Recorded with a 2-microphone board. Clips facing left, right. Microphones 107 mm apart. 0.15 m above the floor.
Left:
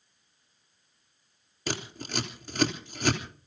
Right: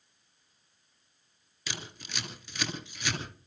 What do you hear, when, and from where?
1.7 s scissors: 45° left (ahead or behind), 3 m